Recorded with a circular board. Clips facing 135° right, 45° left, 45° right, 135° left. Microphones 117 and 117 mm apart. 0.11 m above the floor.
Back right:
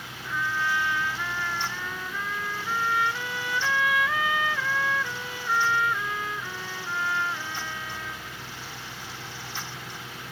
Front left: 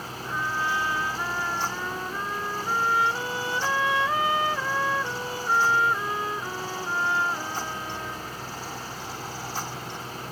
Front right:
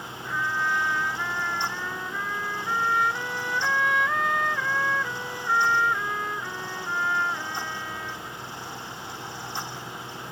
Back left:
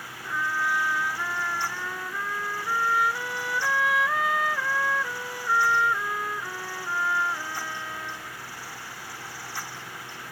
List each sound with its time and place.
0.2 s a trumpet: 50° left